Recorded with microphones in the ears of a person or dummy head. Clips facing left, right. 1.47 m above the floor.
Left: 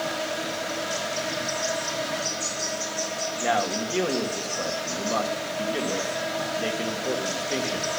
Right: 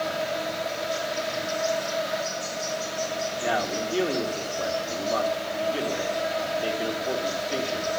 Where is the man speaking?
60° left (ahead or behind), 1.7 m.